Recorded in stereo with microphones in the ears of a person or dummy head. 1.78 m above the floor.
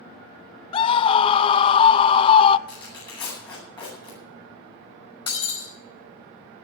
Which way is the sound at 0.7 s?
30° left (ahead or behind).